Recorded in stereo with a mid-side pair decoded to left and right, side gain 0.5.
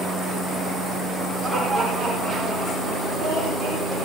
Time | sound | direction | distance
1.4 | laughter | 35° right | 6 m